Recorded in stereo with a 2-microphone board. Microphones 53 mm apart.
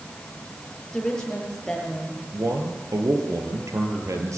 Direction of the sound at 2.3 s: 75° right (ahead or behind).